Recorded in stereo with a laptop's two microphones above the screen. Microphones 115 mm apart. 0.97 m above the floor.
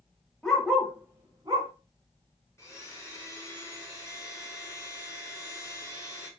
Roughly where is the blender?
Left.